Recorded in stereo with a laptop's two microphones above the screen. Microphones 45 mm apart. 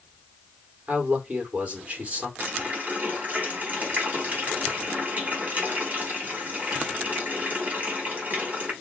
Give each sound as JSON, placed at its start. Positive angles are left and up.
{"t": 0.9, "sound": "a man speaking", "side_deg": -30, "distance_m": 2.5}
{"t": 2.4, "sound": "a running tap", "side_deg": -35, "distance_m": 3.0}